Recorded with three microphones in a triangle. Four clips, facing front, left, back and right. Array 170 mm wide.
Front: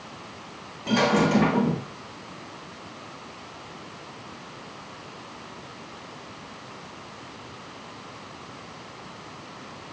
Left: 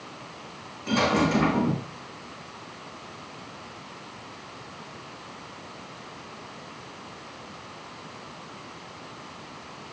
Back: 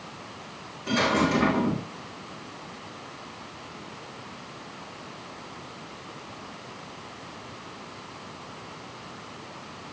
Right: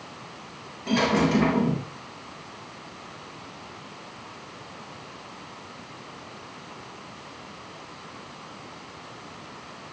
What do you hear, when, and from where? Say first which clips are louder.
0.9 s a dropped coin: right 1 dB, front 3 dB; 25° right, 7 m